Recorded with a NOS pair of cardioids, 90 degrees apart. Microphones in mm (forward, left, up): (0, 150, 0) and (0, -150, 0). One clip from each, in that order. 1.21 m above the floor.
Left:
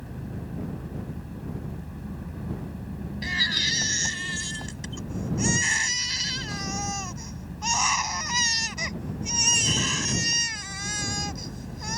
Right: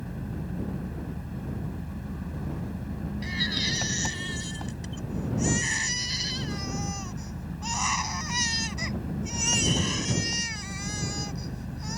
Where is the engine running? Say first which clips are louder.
Right 1 dB; 15° right.